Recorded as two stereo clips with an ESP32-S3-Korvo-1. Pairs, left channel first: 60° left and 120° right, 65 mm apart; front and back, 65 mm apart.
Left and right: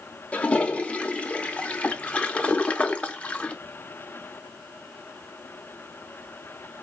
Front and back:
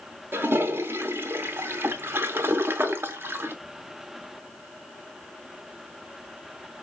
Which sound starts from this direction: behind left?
A toilet flushing, at 0.3 s.